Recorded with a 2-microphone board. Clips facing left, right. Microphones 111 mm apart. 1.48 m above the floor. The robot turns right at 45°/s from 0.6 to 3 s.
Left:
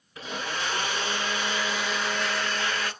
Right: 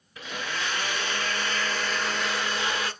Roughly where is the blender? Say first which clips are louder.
Left 1 dB; left.